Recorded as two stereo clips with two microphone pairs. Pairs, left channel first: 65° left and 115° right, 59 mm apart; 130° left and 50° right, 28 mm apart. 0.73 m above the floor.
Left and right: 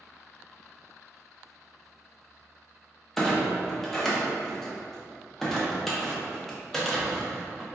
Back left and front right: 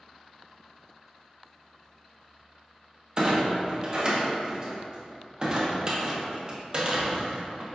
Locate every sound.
3.2 s a clunk: 15° right, 0.6 m